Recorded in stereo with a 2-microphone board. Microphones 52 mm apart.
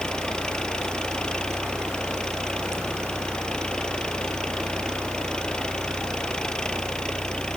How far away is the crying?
I don't hear crying.